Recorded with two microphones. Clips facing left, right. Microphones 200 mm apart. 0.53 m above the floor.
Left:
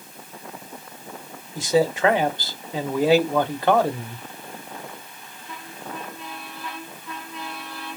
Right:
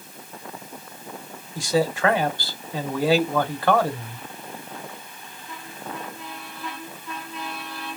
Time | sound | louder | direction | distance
1.6 | a man speaking | left 2 dB | 20° left (ahead or behind) | 0.9 m